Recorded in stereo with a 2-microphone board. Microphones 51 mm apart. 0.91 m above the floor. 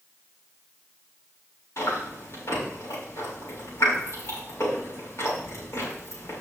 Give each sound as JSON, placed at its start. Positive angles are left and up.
{"t": 1.8, "sound": "chewing", "side_deg": 65, "distance_m": 3.5}